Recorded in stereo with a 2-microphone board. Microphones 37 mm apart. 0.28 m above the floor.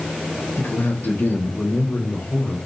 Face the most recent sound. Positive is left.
turn(degrees=75)  # may be behind; listen again after turning